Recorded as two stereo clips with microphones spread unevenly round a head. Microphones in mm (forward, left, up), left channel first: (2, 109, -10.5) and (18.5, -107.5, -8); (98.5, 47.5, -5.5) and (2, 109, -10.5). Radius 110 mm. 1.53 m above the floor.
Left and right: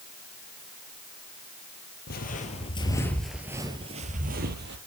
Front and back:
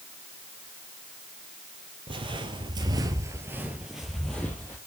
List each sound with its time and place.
2.1 s footsteps: 125° left, 2 m; by 4.8 s 105° right, 2.5 m